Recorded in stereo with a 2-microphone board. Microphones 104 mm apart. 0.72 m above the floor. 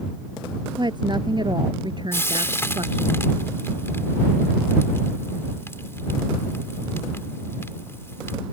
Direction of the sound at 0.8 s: 45° right (ahead or behind).